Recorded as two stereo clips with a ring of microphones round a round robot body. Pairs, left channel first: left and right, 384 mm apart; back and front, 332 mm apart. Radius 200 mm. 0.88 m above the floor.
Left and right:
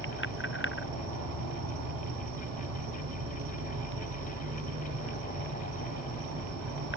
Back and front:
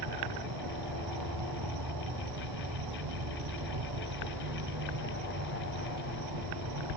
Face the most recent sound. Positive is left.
turn(degrees=-35)